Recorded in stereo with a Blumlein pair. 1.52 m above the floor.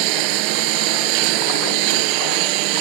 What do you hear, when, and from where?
0.0 s a lawn mower: 45° right